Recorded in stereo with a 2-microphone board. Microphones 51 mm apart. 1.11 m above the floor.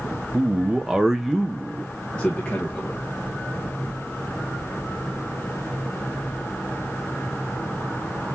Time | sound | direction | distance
0.3 | a man speaking | 25° right (ahead or behind) | 0.7 m